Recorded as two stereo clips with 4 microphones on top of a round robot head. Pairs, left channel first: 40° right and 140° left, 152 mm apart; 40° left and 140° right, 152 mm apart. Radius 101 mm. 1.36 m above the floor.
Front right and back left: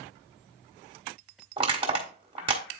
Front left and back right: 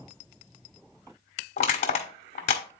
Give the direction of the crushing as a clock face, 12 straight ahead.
9 o'clock.